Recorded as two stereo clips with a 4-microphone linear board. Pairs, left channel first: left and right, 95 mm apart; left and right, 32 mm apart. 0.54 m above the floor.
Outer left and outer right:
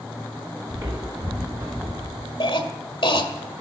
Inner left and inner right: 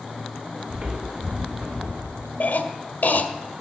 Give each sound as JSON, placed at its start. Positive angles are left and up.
{"t": 0.7, "sound": "footsteps", "side_deg": -35, "distance_m": 3.5}
{"t": 2.4, "sound": "a cough", "side_deg": 60, "distance_m": 1.6}